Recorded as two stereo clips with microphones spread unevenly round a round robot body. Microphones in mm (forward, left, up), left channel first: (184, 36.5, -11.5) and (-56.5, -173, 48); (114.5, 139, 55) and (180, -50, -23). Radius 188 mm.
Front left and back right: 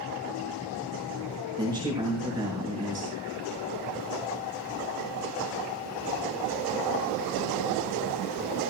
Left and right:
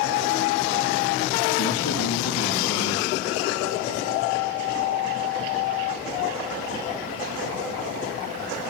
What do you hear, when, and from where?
1.6 s a man speaking: 140° left, 6.5 m